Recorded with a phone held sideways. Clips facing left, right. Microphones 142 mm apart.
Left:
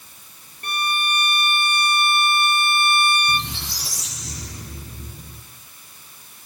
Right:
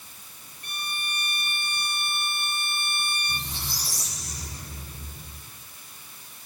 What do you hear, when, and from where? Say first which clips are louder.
0.6 s a violin: left 13 dB; 60° left (ahead or behind), 0.7 m
3.3 s a squeak: left 9 dB; 85° left, 6.5 m